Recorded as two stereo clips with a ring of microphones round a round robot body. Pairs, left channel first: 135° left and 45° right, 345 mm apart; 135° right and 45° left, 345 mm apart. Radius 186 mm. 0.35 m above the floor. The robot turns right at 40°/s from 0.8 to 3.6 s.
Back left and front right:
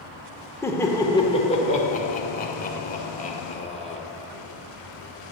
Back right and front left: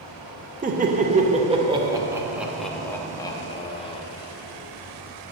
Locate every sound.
0.6 s laughter: 65° left, 0.9 m; by 4.0 s 175° left, 0.9 m